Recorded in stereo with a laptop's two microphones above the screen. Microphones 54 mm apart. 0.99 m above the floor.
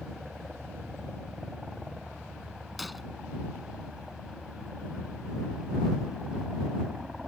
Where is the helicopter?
10° right (ahead or behind).